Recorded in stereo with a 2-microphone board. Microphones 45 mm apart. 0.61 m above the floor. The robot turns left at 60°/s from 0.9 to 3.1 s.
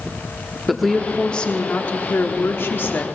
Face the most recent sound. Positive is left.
turn(degrees=50)